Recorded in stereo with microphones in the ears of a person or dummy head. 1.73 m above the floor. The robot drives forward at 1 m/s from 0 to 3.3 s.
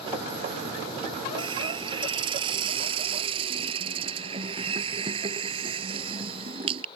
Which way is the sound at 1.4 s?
30° right (ahead or behind).